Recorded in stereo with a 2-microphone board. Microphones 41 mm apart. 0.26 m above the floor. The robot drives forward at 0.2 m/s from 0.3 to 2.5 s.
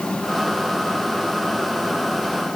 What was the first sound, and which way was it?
Only background noise.